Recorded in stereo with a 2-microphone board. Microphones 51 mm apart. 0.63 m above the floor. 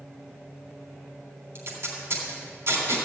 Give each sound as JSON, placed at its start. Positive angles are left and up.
{"t": 1.6, "sound": "tape being pulled", "side_deg": -55, "distance_m": 3.5}